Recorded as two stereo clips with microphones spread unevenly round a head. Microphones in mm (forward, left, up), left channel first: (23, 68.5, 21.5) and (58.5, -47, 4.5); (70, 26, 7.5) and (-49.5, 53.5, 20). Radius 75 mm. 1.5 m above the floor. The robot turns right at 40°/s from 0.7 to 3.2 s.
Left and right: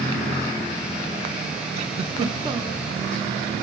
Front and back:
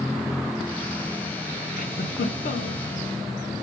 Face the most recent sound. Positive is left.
turn(degrees=10)